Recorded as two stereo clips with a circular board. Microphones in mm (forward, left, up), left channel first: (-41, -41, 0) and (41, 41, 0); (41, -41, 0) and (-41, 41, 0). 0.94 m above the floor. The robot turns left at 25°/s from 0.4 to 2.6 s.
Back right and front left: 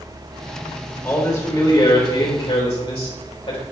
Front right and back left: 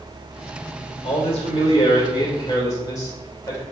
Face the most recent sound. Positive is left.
turn(degrees=-105)